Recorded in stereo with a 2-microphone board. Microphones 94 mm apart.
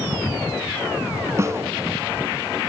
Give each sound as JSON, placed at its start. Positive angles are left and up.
{"t": 1.4, "sound": "a snare drum", "side_deg": -30, "distance_m": 1.0}